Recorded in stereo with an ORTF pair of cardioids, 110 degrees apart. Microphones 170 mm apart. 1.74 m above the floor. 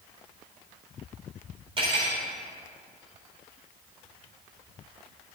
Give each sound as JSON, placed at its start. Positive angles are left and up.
{"t": 1.8, "sound": "cutlery clinking", "azimuth_deg": -35, "distance_m": 4.0}